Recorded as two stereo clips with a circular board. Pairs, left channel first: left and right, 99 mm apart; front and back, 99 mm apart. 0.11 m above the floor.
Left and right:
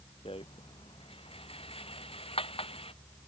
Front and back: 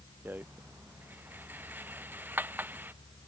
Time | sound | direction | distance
0.2 | a rattle | 110° left | ?